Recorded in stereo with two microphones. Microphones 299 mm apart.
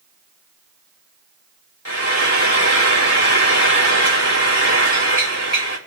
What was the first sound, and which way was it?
Frying, 65° left (ahead or behind).